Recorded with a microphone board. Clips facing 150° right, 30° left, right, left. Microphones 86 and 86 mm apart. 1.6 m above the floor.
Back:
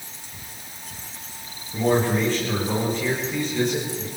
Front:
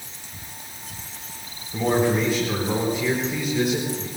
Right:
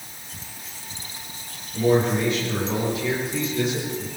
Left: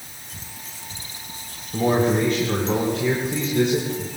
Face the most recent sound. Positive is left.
turn(degrees=110)